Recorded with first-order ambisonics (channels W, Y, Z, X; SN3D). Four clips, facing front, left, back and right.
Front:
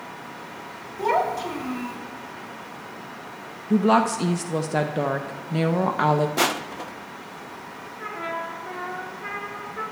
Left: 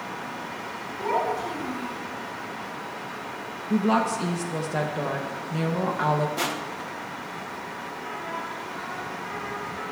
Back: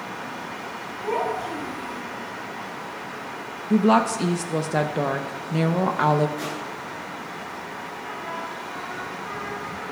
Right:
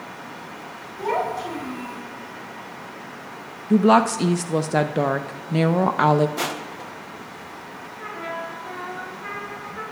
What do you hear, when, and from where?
1.0 s a child speaking: 10° right, 5.5 m
3.7 s a woman speaking: 90° right, 0.6 m
6.4 s crushing: 5° right, 0.7 m
8.0 s a trumpet: 35° right, 4.5 m